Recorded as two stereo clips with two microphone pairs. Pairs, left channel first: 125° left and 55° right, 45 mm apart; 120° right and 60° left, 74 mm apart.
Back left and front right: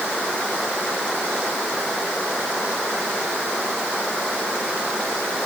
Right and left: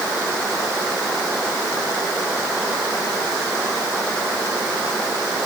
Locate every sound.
Only background noise.